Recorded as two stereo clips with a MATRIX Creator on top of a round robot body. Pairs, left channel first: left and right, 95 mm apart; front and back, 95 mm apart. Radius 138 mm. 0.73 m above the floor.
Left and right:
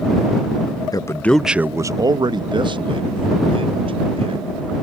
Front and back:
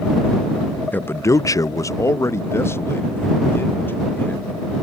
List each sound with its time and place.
0.9 s a man speaking: 65° left; by 4.6 s 70° right